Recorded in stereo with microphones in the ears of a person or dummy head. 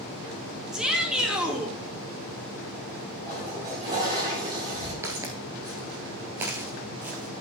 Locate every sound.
0.7 s a shout: 5° right (ahead or behind), 2.5 m
3.3 s a toilet flushing: 20° right (ahead or behind), 6.5 m
5.0 s footsteps: 15° right (ahead or behind), 1.3 m; by 7.4 s 10° right (ahead or behind), 1.9 m